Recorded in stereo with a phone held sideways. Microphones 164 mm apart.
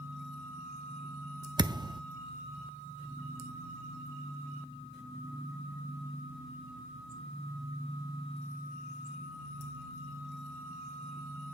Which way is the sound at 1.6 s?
25° right (ahead or behind).